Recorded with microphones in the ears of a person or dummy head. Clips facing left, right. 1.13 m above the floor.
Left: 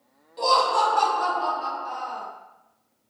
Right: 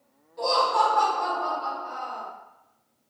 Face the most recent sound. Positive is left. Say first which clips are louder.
# left 1 dB
turn(degrees=40)  # may be behind; listen again after turning